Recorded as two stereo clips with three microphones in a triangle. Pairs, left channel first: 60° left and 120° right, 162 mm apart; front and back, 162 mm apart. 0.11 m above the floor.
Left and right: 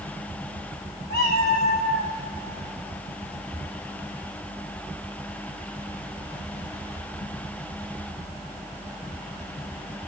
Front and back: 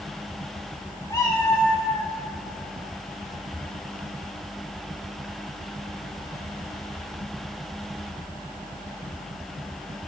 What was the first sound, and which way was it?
A cat meowing, 70° left.